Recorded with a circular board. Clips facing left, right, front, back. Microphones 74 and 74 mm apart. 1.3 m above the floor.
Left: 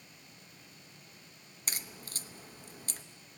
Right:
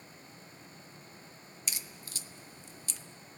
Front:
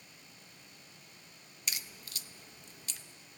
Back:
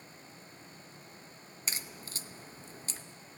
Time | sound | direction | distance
1.7 | a crack | 130° left | 0.8 m